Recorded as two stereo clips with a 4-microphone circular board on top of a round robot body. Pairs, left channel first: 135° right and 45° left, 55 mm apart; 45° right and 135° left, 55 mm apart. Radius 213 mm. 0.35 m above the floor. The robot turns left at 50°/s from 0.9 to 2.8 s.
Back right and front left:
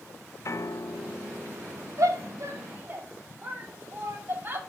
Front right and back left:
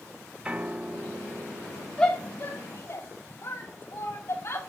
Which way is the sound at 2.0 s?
30° left.